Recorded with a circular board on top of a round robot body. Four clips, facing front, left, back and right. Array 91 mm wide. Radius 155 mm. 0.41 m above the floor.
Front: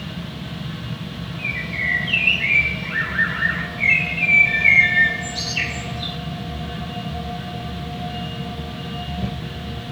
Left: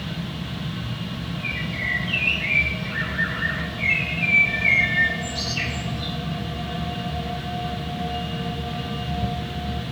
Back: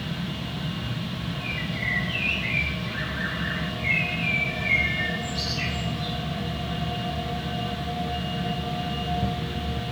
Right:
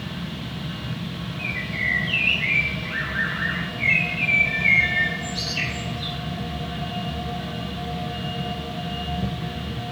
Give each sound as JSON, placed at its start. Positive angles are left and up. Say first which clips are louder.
{"t": 1.4, "sound": "a bird", "louder": "right 3 dB, front 3 dB", "azimuth_deg": -15, "distance_m": 2.5}